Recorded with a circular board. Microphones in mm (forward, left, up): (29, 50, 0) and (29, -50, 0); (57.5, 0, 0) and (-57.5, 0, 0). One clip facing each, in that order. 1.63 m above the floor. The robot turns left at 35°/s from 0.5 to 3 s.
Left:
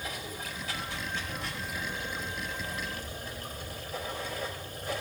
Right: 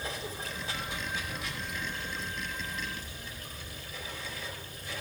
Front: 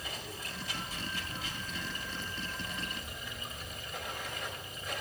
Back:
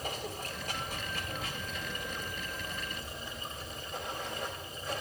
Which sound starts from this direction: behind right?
Running water, at 0.0 s.